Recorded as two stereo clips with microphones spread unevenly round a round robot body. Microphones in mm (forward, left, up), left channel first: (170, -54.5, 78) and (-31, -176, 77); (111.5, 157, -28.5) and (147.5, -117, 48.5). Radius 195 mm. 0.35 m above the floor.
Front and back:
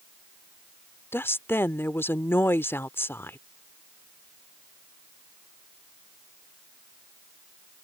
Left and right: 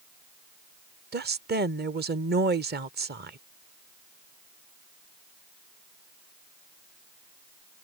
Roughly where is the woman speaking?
Ahead right.